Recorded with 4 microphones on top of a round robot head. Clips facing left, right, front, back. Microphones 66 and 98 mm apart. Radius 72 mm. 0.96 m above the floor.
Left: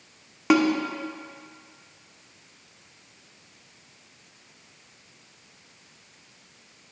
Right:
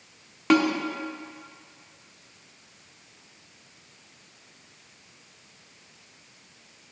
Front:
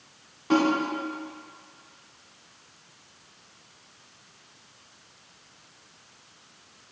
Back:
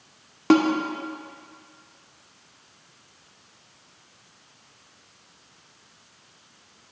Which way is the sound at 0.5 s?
170° left.